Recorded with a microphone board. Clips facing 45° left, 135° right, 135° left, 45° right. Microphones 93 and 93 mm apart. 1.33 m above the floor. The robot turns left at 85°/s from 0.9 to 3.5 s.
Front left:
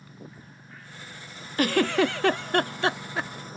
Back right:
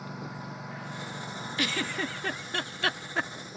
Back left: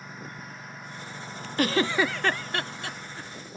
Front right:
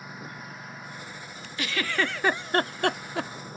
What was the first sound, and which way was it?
A lawn mower, 130° right.